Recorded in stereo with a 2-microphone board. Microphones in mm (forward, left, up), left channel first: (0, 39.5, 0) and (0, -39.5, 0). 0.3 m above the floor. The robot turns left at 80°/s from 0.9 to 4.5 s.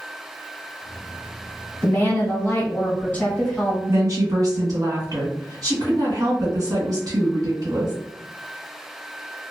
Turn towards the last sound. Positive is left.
turn(degrees=-95)